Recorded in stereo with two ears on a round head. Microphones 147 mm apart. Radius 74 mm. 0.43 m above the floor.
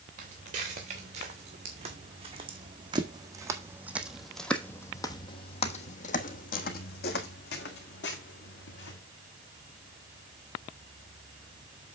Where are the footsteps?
50° right (ahead or behind), 3 m; by 9.0 s 80° left, 3 m.